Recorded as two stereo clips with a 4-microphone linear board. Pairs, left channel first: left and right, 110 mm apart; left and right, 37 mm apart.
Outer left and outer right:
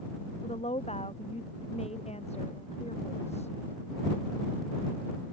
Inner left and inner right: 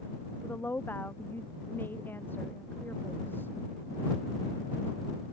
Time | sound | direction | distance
0.4 | a woman speaking | 80° left | ?